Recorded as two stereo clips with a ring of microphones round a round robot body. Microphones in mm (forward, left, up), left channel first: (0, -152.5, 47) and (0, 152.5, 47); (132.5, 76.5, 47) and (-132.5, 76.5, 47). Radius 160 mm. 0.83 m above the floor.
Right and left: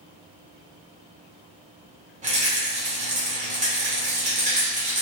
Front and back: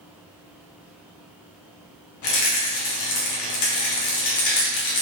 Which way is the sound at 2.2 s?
20° left.